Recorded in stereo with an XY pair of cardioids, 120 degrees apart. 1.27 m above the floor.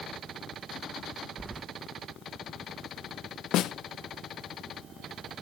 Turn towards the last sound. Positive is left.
turn(degrees=70)